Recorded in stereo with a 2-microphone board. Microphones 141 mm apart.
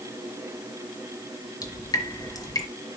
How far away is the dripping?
About 1.4 m.